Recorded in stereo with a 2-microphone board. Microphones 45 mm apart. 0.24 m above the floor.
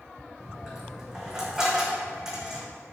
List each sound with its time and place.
0.4 s a dropped coin: 10° right (ahead or behind), 3.5 m